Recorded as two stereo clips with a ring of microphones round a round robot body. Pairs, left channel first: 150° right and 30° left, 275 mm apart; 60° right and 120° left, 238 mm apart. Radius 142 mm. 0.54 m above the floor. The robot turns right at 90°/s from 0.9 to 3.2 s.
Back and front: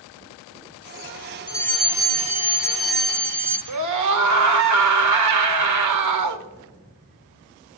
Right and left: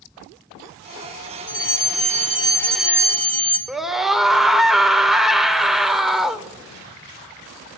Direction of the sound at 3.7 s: 30° left.